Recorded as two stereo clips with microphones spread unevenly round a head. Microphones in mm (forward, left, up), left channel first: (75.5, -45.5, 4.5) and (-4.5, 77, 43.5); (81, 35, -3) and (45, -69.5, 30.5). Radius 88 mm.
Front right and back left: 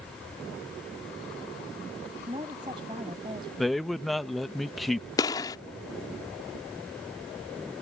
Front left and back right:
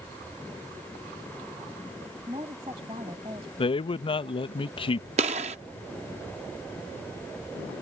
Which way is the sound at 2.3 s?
170° right.